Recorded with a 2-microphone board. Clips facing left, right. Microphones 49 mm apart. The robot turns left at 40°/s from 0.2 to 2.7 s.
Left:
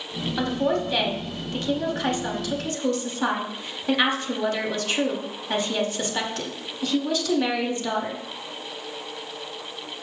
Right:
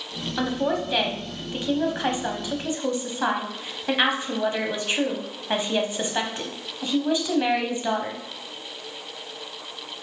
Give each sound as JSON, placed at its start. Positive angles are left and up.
{"t": 0.4, "sound": "a woman speaking", "side_deg": 0, "distance_m": 1.0}